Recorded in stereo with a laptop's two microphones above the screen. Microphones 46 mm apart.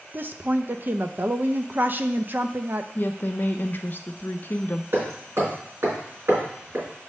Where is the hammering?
65° right (ahead or behind), 3.5 m.